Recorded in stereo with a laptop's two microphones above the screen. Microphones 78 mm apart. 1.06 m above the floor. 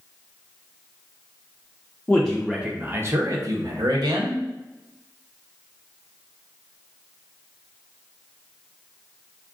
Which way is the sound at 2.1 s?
15° left (ahead or behind).